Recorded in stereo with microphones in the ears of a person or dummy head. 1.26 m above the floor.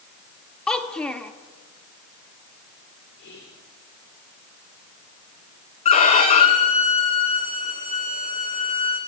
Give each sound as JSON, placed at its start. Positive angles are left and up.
{"t": 0.7, "sound": "a child speaking", "side_deg": 5, "distance_m": 1.1}
{"t": 3.2, "sound": "whispering", "side_deg": 70, "distance_m": 3.5}
{"t": 5.8, "sound": "a violin", "side_deg": 35, "distance_m": 1.4}